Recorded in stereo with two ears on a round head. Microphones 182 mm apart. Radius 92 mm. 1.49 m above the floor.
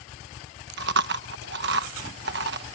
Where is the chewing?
55° right (ahead or behind).